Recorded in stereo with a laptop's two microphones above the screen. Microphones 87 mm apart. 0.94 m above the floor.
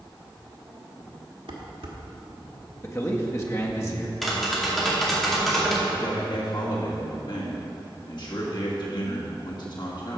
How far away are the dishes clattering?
About 1.4 m.